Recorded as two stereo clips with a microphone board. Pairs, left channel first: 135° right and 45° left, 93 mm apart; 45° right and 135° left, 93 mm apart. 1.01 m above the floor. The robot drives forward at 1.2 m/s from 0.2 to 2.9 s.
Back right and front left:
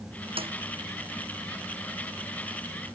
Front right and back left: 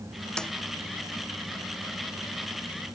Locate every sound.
0.4 s a snare drum: 35° left